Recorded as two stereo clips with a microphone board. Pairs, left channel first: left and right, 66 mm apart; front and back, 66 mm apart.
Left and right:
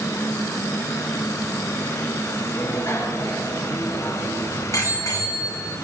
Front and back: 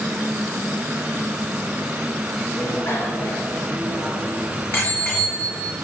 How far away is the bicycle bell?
About 2 m.